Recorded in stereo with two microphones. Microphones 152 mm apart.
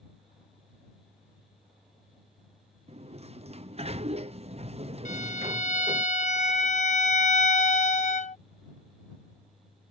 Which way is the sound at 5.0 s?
50° left (ahead or behind).